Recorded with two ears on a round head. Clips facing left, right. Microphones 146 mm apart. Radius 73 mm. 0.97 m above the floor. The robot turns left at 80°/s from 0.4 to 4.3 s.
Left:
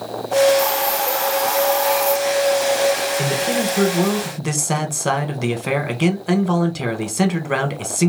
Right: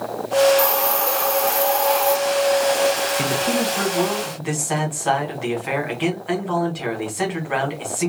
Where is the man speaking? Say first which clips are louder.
Left 1 dB; 175° right, 0.9 m; by 8.1 s 95° left, 0.9 m.